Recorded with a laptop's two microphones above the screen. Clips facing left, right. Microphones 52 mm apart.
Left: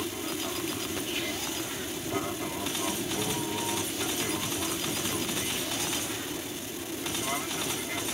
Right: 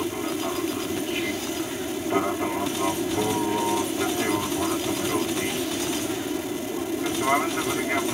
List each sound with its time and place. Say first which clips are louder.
0.0 s an aircraft: right 7 dB; 30° right (ahead or behind); by 8.2 s 45° right (ahead or behind)